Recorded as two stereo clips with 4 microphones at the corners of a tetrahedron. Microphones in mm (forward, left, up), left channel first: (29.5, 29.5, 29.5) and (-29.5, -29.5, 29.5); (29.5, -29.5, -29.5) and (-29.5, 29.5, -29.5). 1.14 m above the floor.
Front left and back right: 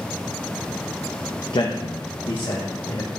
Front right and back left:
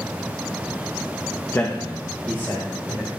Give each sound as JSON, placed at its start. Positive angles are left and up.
{"t": 1.5, "sound": "a man speaking", "azimuth_deg": 15, "distance_m": 0.8}